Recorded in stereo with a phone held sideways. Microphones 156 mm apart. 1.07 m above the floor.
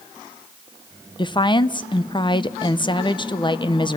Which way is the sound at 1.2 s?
30° left (ahead or behind).